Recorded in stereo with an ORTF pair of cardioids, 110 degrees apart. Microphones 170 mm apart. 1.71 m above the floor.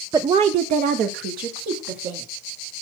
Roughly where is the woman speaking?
Ahead.